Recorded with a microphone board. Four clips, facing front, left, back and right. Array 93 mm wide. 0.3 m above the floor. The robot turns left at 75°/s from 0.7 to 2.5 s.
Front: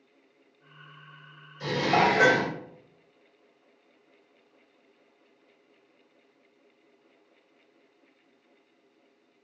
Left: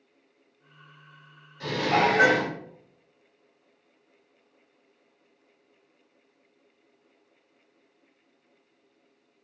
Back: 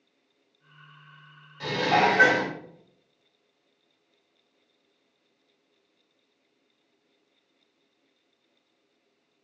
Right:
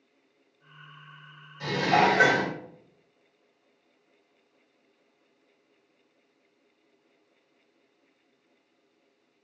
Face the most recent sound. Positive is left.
turn(degrees=120)